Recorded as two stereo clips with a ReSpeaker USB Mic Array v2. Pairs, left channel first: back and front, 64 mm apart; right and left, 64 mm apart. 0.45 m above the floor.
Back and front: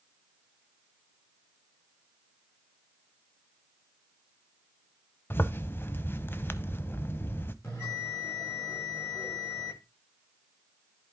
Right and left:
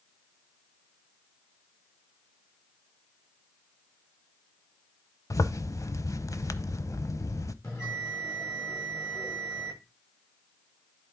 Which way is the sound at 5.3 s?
125° right.